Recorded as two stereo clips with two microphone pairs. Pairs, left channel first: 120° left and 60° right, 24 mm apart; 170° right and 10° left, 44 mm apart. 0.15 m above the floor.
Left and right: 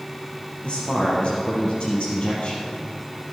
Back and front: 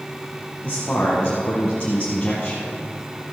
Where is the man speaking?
130° left, 3.5 m.